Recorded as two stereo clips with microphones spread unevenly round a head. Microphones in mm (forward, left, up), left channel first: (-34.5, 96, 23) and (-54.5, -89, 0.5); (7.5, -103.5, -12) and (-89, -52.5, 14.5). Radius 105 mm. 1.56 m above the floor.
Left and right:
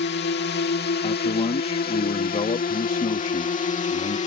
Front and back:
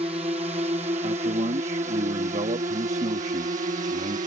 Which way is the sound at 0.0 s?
100° left.